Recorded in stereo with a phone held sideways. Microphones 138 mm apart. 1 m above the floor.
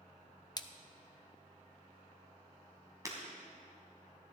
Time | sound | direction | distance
0.6 | a splash | 30° left (ahead or behind) | 0.5 m
3.0 | breaking glass | 25° right (ahead or behind) | 2.5 m